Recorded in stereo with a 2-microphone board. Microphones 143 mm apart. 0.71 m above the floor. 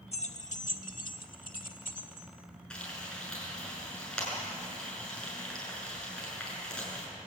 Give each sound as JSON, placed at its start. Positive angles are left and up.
{"t": 0.1, "sound": "keys jangling", "side_deg": 45, "distance_m": 1.2}
{"t": 2.7, "sound": "frying", "side_deg": 5, "distance_m": 7.0}